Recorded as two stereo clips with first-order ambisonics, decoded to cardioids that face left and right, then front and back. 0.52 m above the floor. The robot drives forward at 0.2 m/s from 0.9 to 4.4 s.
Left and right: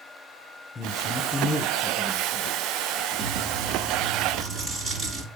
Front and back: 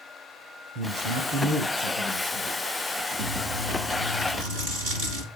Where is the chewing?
160° right, 5 m.